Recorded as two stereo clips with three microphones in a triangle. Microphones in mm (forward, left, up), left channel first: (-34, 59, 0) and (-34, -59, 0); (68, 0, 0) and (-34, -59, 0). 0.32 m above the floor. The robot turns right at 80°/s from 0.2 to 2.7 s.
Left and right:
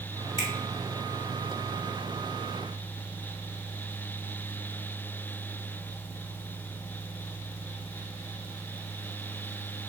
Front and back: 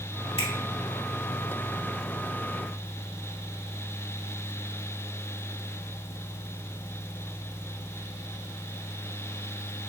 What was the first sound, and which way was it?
A finger snap, 55° left.